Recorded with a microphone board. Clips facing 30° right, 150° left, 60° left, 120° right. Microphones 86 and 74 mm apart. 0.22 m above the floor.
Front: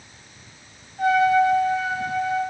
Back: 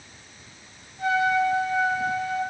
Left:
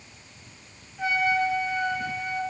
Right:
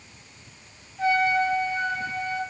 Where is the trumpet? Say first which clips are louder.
Front 5 dB, right 2 dB; 15° right, 2.5 m.